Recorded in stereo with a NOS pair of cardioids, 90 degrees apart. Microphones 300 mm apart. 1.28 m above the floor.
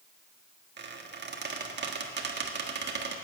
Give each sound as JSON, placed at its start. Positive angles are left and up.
{"t": 0.8, "sound": "a squeak", "azimuth_deg": -40, "distance_m": 1.5}